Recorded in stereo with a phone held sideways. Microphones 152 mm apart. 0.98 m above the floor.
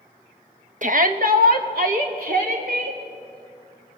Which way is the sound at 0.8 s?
55° right (ahead or behind).